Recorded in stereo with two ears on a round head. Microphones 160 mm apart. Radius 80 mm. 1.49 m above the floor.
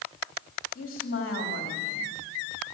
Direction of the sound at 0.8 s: 50° left (ahead or behind).